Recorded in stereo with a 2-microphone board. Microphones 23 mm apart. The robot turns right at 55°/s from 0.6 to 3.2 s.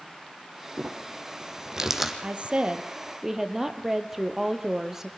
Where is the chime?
I don't hear a chime.